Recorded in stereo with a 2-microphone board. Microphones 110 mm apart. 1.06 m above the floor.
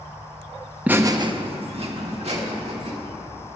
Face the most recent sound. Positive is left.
turn(degrees=-75)  # may be behind; listen again after turning